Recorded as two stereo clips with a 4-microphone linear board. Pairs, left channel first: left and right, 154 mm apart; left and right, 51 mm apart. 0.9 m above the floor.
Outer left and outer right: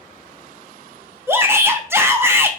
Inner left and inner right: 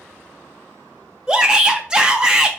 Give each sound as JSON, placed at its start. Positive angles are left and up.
{"t": 1.3, "sound": "a shout", "side_deg": -15, "distance_m": 0.7}